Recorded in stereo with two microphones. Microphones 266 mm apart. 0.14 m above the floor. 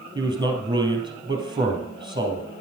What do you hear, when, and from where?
0.1 s a man speaking: 15° right (ahead or behind), 2.5 m